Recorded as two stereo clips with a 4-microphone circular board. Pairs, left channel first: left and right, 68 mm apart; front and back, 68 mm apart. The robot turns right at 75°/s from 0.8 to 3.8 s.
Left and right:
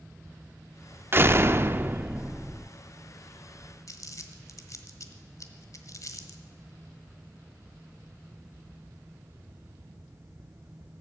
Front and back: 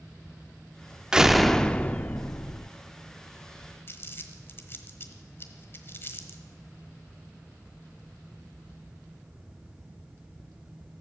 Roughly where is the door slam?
Right.